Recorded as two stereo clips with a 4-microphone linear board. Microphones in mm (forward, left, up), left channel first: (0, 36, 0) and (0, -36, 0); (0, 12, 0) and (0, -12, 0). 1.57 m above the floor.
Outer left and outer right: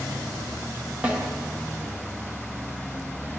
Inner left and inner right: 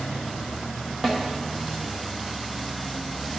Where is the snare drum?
20° right (ahead or behind), 1.3 m.